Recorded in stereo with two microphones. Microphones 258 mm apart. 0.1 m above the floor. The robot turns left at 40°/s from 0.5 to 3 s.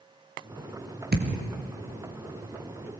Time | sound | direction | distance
1.1 | a thud | 35° right (ahead or behind) | 2.5 m